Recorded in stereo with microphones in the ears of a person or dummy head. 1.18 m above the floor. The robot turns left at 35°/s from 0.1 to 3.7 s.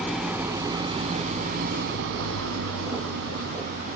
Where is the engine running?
Straight ahead; by 4.0 s 125° right.